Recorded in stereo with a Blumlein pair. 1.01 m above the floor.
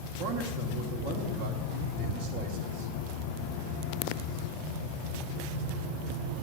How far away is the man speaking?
About 2 m.